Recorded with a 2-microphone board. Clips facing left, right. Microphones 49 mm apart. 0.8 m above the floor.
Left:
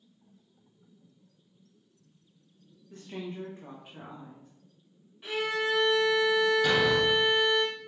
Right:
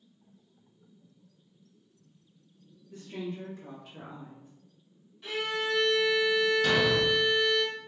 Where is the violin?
15° left (ahead or behind), 1.7 m.